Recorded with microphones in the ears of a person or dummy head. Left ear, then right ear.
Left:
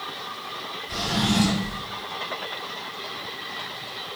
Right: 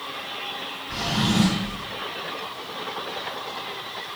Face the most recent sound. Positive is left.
turn(degrees=25)  # may be behind; listen again after turning